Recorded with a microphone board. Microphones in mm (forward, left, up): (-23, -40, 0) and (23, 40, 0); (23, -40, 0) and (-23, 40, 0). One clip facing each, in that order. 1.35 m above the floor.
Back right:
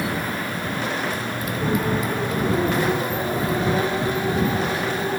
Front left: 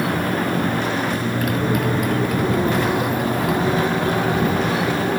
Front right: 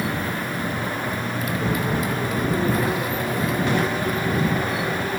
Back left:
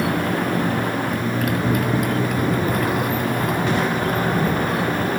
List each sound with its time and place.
0.0 s a motorcycle: 95° left; by 5.2 s 80° left